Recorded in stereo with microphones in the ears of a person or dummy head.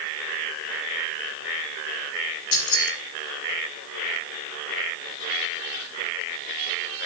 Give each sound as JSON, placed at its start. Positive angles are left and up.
{"t": 2.5, "sound": "keys jangling", "side_deg": 75, "distance_m": 2.5}